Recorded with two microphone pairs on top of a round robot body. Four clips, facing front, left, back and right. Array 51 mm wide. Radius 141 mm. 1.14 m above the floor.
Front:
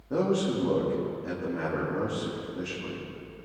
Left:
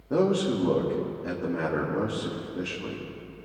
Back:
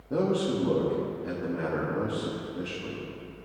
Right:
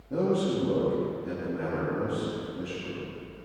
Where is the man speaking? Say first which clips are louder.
Left 2 dB, even; 70° left, 2.5 m.